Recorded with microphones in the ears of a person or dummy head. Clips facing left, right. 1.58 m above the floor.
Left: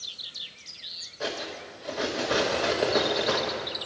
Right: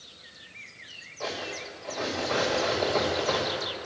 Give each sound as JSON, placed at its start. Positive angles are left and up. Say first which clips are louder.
{"t": 1.2, "sound": "cutlery clinking", "louder": "left 1 dB", "side_deg": 15, "distance_m": 1.0}